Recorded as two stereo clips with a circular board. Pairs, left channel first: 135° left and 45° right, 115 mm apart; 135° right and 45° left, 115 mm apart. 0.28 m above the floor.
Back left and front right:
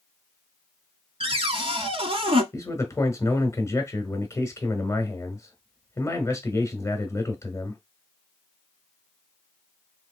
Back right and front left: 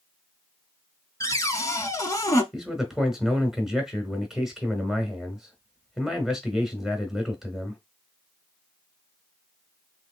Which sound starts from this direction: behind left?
A man speaking, at 2.5 s.